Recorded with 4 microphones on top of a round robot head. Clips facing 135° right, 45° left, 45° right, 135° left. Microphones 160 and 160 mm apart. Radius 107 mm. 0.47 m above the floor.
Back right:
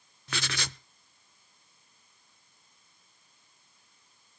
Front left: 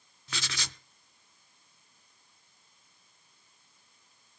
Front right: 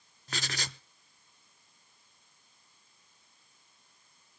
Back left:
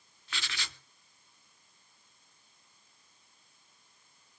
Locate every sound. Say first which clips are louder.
0.3 s writing: back right 5 dB, front right 5 dB; 100° right, 0.6 m